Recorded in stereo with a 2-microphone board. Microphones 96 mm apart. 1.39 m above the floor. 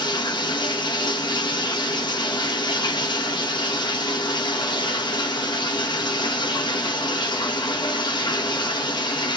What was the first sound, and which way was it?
Running water, 50° left (ahead or behind).